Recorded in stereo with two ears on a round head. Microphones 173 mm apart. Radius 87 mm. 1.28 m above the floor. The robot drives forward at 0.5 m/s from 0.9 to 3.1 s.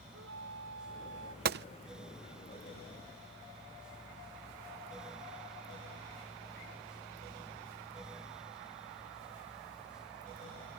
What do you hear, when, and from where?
0.1 s a flute: 75° right (ahead or behind)
1.4 s a gunshot: 50° right (ahead or behind); by 1.6 s 60° right (ahead or behind)